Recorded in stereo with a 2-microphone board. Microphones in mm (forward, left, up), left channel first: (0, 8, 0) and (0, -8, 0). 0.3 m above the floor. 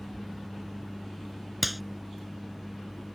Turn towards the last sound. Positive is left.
turn(degrees=-5)  # may be behind; listen again after turning